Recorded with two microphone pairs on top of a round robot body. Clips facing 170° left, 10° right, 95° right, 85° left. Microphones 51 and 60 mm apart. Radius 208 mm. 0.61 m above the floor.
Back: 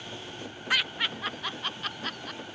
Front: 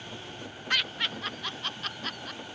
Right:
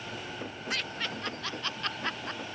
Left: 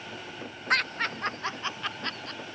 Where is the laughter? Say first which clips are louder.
Back 1 dB, left 9 dB; 85° left; by 2.4 s 85° right.